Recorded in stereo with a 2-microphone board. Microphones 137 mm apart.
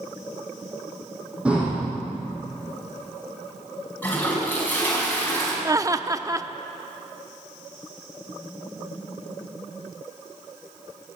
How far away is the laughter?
About 0.7 m.